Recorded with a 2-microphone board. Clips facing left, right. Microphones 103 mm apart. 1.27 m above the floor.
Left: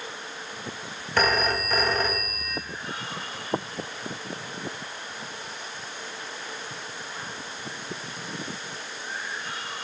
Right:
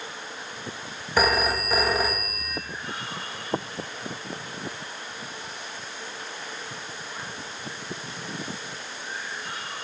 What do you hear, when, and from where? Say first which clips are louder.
1.2 s a phone ringing: right 1 dB; 10° right (ahead or behind), 0.5 m